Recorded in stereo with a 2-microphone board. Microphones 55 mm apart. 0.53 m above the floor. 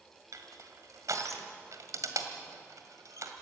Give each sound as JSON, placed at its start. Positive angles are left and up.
{"t": 0.3, "sound": "crushing", "side_deg": -75, "distance_m": 1.9}